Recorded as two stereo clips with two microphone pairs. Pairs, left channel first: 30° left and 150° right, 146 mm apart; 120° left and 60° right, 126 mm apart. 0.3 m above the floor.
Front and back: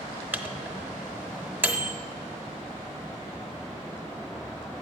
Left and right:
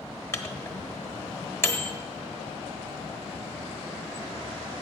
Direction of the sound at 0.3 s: 150° left.